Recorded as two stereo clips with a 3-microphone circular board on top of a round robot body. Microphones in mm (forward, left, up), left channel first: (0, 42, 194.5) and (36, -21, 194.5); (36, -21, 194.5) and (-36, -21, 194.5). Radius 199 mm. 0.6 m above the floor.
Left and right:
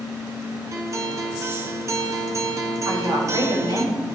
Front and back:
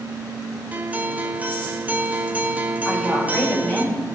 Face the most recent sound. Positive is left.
turn(degrees=-70)